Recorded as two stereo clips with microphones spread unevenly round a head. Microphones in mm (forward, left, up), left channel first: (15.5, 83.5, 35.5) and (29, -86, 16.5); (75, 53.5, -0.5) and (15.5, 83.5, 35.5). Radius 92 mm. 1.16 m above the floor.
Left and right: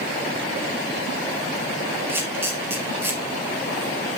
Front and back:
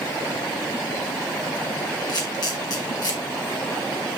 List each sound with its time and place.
2.1 s a camera shutter: 5° right, 4 m